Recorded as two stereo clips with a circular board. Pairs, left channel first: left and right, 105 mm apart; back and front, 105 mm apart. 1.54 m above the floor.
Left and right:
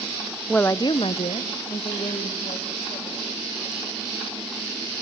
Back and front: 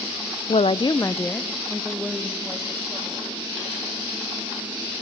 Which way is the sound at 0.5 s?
175° left.